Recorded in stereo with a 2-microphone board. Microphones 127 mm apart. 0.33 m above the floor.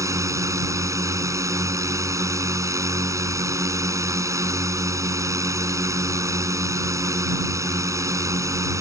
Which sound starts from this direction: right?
A drone, at 0.0 s.